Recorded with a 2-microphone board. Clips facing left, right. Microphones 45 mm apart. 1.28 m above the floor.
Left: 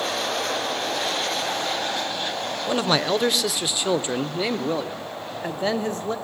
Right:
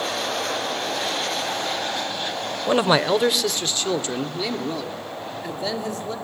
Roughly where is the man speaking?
Right.